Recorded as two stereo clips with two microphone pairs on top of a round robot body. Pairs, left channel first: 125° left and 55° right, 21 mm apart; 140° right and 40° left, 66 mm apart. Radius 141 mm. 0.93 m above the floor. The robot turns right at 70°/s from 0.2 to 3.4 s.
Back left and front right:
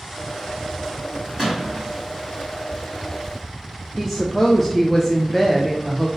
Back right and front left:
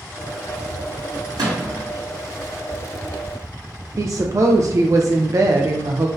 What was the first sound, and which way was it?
A gunshot, 5° left.